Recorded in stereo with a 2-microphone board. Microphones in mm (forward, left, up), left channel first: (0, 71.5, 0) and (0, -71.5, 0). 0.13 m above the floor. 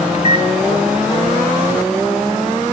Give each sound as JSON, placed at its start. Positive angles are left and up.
{"t": 0.1, "sound": "a microwave", "side_deg": 50, "distance_m": 1.7}